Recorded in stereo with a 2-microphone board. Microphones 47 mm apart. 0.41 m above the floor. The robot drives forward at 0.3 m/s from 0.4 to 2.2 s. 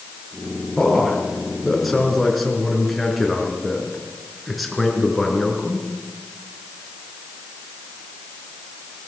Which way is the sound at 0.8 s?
Centre (ahead or behind).